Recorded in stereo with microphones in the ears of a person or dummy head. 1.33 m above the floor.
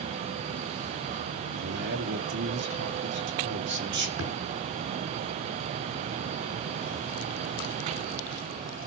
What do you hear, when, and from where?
1.5 s a man speaking: 60° right (ahead or behind), 3 m
4.2 s a thud: 80° right, 6 m